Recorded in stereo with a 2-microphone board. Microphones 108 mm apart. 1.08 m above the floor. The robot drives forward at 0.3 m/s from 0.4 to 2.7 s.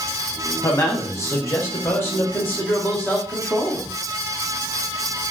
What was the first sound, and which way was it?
A man speaking, 30° left (ahead or behind).